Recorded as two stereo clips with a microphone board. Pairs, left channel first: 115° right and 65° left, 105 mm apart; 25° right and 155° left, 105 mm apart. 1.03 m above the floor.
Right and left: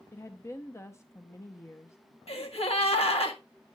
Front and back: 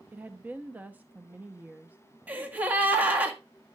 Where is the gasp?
130° right, 1.7 m.